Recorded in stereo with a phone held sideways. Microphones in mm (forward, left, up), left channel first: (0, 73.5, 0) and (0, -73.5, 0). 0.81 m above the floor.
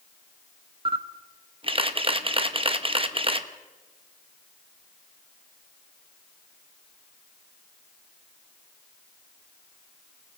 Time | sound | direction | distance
0.8 | a camera shutter | 40° right (ahead or behind) | 1.1 m